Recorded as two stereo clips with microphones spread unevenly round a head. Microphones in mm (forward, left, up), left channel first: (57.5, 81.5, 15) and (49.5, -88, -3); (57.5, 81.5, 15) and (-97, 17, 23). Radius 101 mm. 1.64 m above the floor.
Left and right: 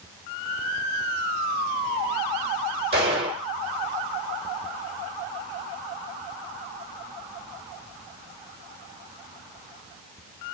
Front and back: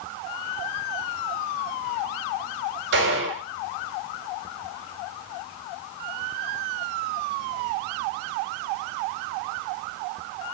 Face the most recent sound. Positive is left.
turn(degrees=-160)